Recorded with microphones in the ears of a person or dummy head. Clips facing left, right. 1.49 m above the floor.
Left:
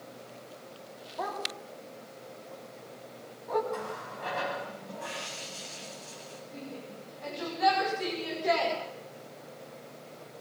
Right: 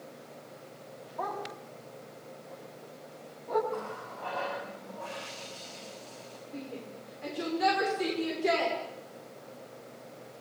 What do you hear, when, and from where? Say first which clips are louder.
1.2 s a dog barking: even; 5° left (ahead or behind), 5 m; by 3.6 s 10° right (ahead or behind), 7 m
3.7 s a running tap: left 1 dB; 25° left (ahead or behind), 7 m
6.5 s a shout: right 2 dB; 35° right (ahead or behind), 6 m